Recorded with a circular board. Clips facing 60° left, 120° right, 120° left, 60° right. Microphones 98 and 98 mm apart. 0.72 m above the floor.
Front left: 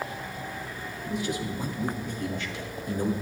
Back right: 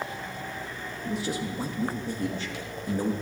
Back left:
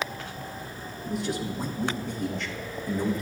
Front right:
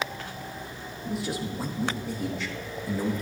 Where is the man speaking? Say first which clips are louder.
Even, back left 1 dB; 145° right, 1.1 m.